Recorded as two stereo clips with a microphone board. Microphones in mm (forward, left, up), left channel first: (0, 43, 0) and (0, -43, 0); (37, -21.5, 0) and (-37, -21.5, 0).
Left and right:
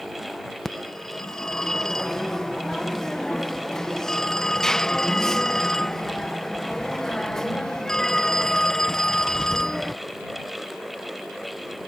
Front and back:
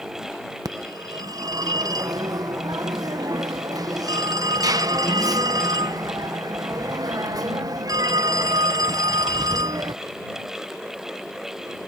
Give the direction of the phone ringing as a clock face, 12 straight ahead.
6 o'clock.